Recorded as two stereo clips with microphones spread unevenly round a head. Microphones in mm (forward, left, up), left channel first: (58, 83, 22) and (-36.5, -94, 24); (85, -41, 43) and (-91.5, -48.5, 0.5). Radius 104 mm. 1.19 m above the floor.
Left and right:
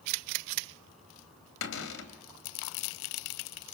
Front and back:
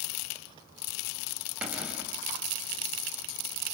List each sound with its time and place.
1.6 s a cupboard door: 95° left, 2.5 m